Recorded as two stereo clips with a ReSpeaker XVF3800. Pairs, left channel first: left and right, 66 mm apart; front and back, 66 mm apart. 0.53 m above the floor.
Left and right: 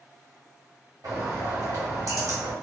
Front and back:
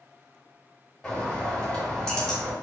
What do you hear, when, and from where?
1.0 s a bird: 80° right, 1.3 m